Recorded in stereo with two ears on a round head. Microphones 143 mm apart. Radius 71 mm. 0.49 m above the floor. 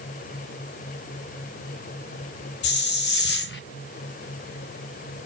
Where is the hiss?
70° left (ahead or behind), 0.6 m.